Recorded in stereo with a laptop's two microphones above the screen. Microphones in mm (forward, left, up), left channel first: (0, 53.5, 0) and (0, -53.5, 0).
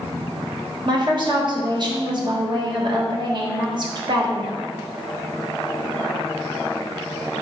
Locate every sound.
0.8 s a woman speaking: 45° right (ahead or behind), 1.1 m